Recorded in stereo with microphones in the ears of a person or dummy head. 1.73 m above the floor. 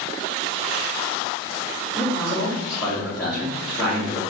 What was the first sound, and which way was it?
A man speaking, 5° right (ahead or behind).